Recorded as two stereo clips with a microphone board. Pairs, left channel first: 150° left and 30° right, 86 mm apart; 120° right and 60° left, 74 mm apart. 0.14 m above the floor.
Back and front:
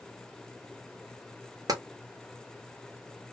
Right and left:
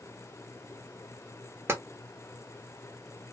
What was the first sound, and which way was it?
Tapping, 5° left.